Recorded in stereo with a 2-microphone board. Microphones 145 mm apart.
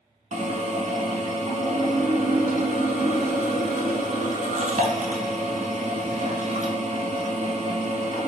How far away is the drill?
About 0.8 m.